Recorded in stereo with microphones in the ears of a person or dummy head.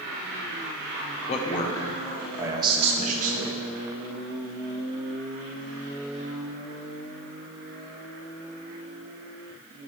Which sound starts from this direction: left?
A man speaking, at 1.3 s.